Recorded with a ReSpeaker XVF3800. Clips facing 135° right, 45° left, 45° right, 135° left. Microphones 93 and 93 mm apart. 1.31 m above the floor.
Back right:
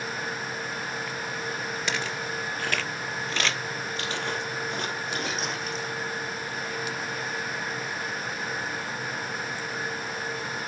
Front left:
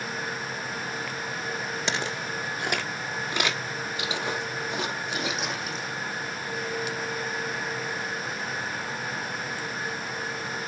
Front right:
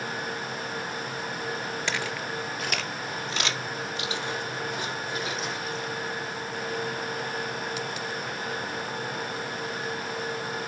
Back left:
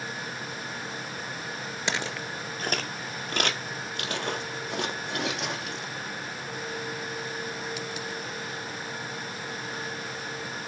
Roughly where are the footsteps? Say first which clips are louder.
Front left 1 dB, back left 2 dB; left.